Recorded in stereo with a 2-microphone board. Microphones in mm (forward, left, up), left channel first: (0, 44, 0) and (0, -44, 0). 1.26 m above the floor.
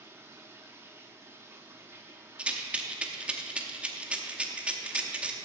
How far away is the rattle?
About 0.8 m.